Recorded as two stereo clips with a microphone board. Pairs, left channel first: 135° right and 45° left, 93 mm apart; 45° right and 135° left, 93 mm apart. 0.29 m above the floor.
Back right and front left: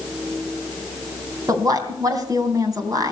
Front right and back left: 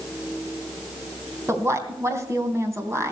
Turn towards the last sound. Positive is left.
turn(degrees=85)